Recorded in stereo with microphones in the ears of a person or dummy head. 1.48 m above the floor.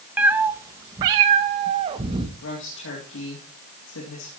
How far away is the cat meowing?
About 1.0 m.